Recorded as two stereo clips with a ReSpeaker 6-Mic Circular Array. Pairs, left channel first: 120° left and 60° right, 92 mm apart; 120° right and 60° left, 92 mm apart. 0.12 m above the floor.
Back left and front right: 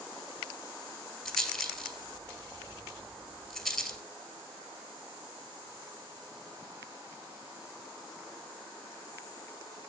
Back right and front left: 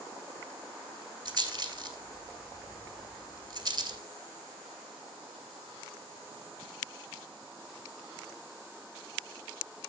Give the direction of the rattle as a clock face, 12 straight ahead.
11 o'clock.